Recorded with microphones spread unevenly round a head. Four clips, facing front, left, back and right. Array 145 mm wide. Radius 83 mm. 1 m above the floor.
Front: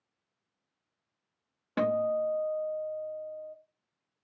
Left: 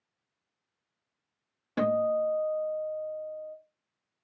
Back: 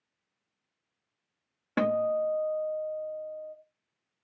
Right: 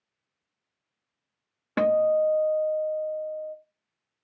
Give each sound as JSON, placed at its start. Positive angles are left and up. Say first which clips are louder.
{"t": 1.8, "sound": "a guitar", "louder": "right 5 dB, back 1 dB", "azimuth_deg": -115, "distance_m": 0.7}